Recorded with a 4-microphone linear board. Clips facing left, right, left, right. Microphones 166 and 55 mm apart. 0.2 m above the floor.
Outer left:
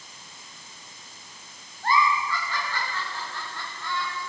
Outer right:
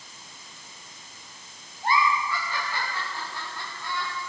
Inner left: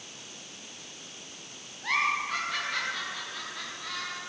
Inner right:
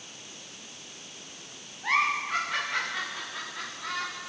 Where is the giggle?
15° right (ahead or behind), 9.5 m.